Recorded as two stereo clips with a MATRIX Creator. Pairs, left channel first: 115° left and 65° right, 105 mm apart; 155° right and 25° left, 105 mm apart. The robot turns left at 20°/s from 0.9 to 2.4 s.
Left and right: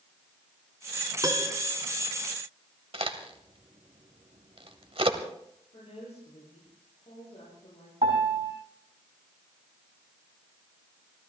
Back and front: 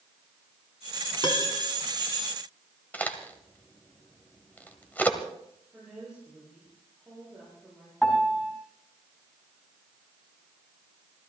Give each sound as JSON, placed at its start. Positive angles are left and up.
{"t": 1.2, "sound": "a piano", "azimuth_deg": -120, "distance_m": 2.0}
{"t": 2.9, "sound": "a crack", "azimuth_deg": -85, "distance_m": 1.5}
{"t": 5.7, "sound": "a woman speaking", "azimuth_deg": 105, "distance_m": 9.5}
{"t": 8.0, "sound": "a piano", "azimuth_deg": -75, "distance_m": 4.0}